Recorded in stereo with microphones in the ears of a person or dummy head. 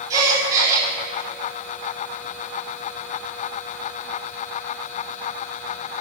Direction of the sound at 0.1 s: 25° right (ahead or behind).